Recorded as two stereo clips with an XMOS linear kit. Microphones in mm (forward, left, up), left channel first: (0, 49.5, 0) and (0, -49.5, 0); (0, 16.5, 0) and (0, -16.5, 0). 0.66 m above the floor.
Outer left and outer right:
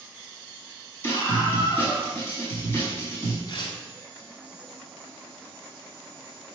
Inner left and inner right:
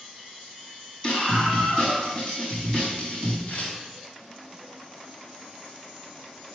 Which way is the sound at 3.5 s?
50° left (ahead or behind).